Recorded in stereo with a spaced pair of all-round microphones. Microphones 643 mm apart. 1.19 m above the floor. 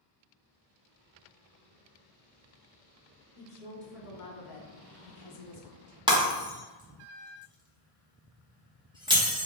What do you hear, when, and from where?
3.4 s a woman speaking: 10° left (ahead or behind), 0.8 m; by 6.0 s 40° left (ahead or behind), 0.9 m
6.1 s breaking glass: 5° right (ahead or behind), 0.8 m